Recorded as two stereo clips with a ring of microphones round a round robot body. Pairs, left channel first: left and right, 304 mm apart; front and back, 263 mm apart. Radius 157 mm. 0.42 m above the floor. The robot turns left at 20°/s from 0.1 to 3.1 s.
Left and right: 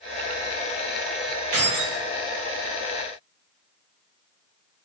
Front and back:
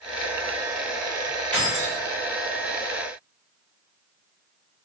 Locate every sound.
1.5 s keys jangling: 85° right, 1.0 m; by 2.0 s 90° right, 1.0 m